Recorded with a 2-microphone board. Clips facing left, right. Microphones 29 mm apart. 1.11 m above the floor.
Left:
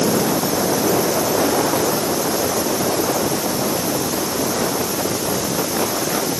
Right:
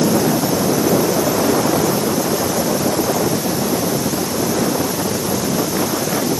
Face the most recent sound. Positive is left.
No sound to turn to.